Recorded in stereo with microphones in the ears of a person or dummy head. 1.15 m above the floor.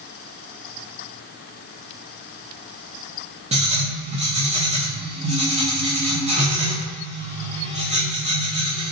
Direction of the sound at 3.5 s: 35° right (ahead or behind).